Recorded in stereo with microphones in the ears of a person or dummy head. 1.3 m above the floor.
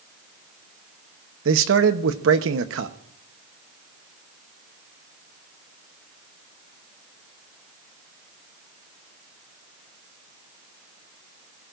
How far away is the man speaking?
About 1.0 m.